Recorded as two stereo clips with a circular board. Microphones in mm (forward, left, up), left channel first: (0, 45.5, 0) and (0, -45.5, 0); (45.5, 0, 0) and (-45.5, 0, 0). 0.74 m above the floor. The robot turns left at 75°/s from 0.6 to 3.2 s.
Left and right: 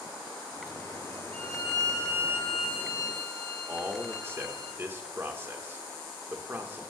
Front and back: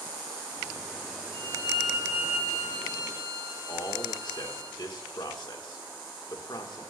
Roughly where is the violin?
Behind.